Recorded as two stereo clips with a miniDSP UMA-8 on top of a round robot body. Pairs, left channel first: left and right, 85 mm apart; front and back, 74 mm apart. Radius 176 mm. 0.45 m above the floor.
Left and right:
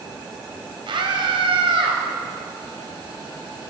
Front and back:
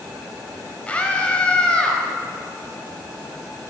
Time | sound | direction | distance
0.9 | a scream | 70° right | 3.5 m